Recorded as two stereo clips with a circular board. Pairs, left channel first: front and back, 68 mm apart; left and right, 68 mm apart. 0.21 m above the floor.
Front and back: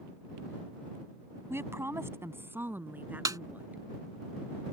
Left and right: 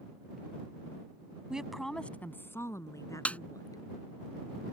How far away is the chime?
No chime in this recording.